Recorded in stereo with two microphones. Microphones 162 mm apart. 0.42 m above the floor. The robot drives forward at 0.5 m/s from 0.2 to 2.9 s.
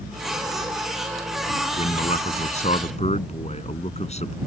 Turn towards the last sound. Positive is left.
turn(degrees=40)  # may be behind; listen again after turning